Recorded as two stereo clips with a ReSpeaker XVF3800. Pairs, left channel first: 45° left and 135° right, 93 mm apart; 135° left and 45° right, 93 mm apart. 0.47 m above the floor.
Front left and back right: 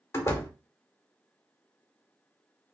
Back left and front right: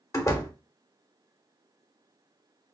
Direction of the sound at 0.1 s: 95° left.